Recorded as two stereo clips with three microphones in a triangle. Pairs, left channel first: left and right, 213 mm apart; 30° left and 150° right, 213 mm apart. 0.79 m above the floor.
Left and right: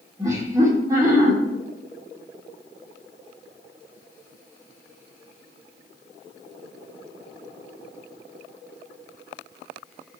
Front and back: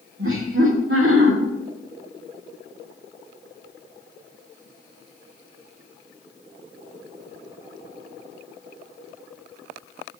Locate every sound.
0.2 s laughter: 165° right, 2.5 m